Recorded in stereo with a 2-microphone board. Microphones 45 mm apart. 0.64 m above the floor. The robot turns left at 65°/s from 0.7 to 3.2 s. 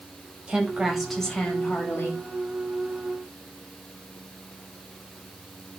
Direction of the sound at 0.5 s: 155° right.